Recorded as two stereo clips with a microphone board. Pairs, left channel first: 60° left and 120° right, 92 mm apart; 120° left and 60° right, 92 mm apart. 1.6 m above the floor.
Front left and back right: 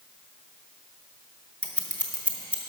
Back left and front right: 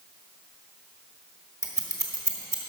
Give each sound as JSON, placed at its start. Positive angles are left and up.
{"t": 1.6, "sound": "scissors", "azimuth_deg": -10, "distance_m": 1.3}